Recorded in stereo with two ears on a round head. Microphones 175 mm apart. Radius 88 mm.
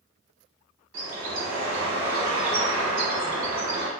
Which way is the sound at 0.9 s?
75° right (ahead or behind).